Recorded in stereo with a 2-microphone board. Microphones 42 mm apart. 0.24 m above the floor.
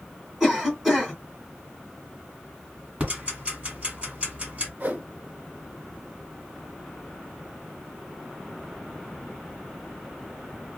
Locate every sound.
0.4 s a cough: 10° right (ahead or behind), 1.5 m
3.0 s ticking: 30° right (ahead or behind), 1.6 m
4.8 s a whoosh: 45° right (ahead or behind), 0.7 m